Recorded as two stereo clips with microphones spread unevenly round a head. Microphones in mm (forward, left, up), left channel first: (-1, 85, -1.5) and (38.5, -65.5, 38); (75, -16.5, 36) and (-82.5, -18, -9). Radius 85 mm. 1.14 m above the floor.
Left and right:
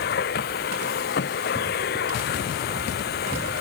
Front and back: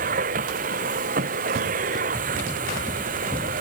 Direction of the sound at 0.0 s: 135° left.